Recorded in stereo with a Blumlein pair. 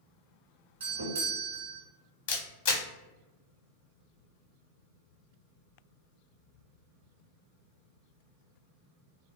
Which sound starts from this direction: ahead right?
A doorbell, at 0.8 s.